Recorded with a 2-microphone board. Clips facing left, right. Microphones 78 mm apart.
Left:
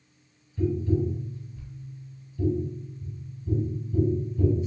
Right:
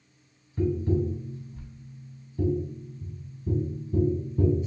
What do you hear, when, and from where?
0.6 s tapping: 45° right (ahead or behind), 1.0 m